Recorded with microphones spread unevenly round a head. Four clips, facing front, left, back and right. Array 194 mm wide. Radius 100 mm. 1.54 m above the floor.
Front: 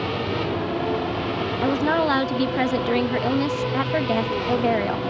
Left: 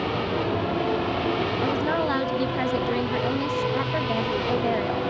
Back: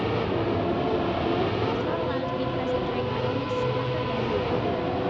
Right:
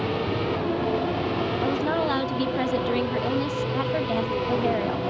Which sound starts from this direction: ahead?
A woman speaking, at 1.6 s.